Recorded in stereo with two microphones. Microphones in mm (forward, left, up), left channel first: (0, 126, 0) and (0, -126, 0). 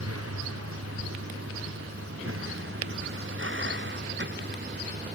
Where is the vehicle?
80° right; by 5.2 s 45° right (ahead or behind).